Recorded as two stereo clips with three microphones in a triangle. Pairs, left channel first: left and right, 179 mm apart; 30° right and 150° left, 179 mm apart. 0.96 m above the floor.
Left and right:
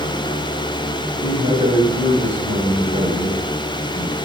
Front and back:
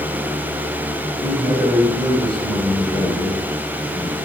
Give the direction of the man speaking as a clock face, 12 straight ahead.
3 o'clock.